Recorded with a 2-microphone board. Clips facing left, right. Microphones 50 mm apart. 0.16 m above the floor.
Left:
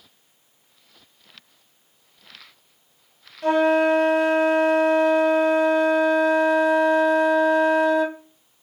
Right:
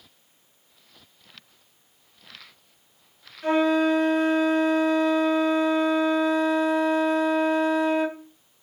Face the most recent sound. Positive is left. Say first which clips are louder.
# left 3 dB
turn(degrees=80)